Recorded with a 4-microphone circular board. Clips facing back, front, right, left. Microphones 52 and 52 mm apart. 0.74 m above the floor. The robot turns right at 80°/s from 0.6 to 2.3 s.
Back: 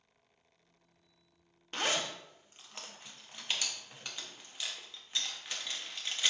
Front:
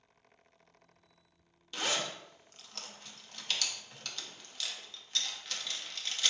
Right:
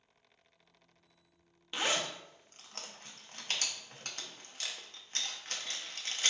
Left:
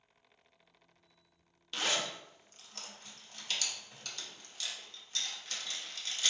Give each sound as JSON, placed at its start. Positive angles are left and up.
{"t": 1.7, "sound": "a zipper", "azimuth_deg": -155, "distance_m": 0.6}